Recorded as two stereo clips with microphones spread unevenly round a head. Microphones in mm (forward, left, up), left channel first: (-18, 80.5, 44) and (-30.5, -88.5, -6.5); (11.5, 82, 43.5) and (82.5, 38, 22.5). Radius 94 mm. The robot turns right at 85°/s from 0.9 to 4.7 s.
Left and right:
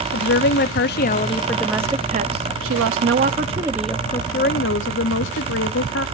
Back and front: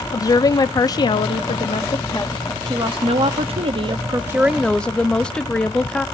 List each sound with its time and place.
0.1 s a woman speaking: 105° left, 0.8 m; by 6.0 s 70° left, 0.8 m